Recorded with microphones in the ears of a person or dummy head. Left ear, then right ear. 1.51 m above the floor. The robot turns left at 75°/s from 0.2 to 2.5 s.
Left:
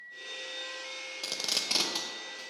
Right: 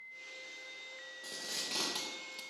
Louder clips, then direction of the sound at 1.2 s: Left 9 dB; 60° left (ahead or behind).